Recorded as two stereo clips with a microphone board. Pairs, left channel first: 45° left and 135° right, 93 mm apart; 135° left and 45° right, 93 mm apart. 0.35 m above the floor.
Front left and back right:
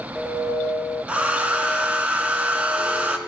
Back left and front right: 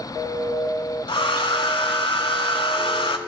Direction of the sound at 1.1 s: 150° left.